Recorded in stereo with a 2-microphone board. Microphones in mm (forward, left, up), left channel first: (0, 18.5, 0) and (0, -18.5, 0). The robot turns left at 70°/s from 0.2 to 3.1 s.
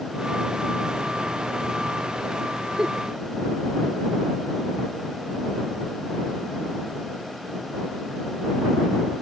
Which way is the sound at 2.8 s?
20° right (ahead or behind).